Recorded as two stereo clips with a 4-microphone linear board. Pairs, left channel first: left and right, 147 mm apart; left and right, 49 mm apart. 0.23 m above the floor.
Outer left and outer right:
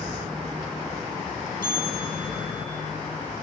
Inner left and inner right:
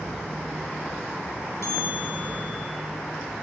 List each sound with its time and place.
1.6 s a bell: 70° left (ahead or behind), 8 m